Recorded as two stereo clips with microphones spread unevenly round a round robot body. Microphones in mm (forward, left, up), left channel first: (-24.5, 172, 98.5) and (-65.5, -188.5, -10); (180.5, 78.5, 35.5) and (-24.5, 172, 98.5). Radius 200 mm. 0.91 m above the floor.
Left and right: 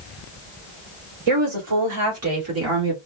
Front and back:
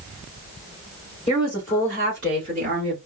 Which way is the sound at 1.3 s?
130° right.